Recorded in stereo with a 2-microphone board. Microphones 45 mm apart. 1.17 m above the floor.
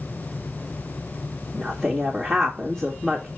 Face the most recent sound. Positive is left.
turn(degrees=15)  # may be behind; listen again after turning